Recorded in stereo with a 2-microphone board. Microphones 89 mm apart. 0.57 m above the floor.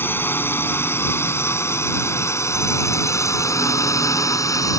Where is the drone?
20° left (ahead or behind); by 4.8 s 35° left (ahead or behind).